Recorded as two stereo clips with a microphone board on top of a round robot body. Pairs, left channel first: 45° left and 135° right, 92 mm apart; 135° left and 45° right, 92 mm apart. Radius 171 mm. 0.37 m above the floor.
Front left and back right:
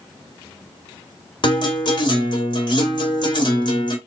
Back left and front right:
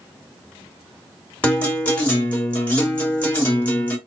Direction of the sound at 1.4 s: 60° left.